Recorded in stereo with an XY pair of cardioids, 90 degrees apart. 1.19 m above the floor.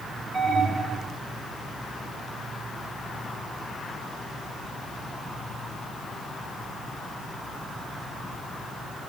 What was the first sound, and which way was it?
An alarm, 45° right.